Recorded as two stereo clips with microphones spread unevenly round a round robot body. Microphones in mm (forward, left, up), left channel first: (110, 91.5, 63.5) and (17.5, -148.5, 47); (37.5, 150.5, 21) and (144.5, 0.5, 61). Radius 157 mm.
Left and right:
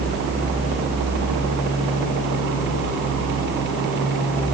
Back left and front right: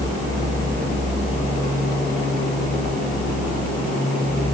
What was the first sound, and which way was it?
Only background noise.